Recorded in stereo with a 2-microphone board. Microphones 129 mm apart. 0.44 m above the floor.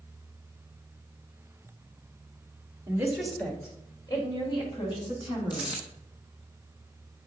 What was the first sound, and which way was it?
A woman speaking, 20° right (ahead or behind).